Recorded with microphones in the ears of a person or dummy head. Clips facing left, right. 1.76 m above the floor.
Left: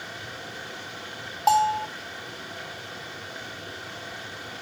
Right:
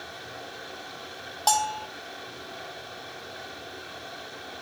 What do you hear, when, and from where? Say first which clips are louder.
0.0 s running water: left 1 dB; 30° left (ahead or behind), 9 m
1.5 s a bell: left 5 dB; 15° right (ahead or behind), 3 m